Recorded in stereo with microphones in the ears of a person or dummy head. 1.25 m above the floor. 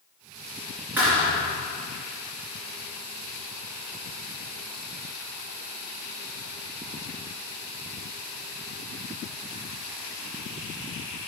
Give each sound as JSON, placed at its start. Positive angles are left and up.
{"t": 1.0, "sound": "a thud", "side_deg": -10, "distance_m": 2.5}